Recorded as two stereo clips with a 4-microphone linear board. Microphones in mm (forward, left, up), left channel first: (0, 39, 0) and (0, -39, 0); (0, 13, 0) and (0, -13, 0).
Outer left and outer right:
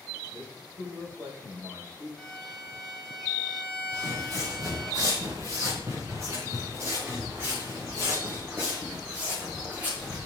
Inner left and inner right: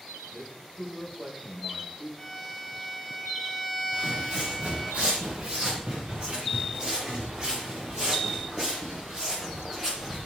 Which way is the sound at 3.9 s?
50° right (ahead or behind).